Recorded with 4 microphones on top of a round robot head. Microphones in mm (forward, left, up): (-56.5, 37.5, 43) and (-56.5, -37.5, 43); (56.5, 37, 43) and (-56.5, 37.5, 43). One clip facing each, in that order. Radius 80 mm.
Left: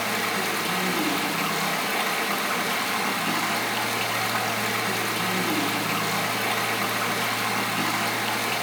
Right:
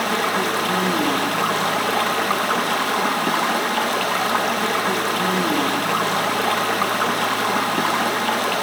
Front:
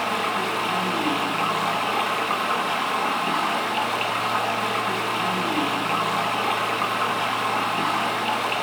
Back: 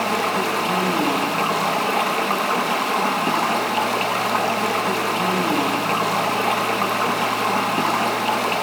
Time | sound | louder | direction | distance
0.0 | running water | right 6 dB, back 4 dB | 120° right | 2 m